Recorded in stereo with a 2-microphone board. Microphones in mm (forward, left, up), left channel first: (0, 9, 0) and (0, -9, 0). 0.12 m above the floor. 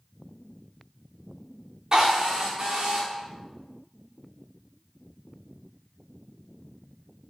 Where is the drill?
40° right (ahead or behind), 4 m.